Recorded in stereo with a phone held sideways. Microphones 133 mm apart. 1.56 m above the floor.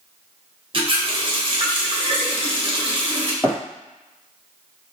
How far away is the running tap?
About 0.7 m.